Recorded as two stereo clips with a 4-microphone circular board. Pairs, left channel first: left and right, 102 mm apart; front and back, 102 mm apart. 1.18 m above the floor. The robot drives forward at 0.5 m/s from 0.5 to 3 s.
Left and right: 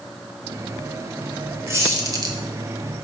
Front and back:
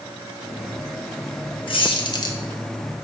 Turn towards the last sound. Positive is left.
turn(degrees=-95)